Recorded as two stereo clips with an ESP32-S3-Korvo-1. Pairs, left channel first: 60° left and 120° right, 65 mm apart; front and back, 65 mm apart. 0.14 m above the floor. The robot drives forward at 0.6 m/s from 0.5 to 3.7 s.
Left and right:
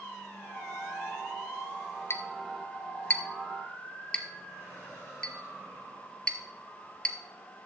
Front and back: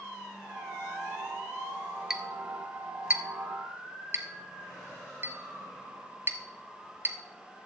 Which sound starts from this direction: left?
A clink, at 2.1 s.